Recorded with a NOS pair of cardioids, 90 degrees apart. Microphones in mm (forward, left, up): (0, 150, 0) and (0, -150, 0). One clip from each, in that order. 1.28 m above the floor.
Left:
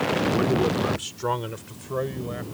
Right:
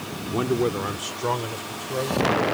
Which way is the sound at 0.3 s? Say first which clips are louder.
Left 1 dB; 10° right.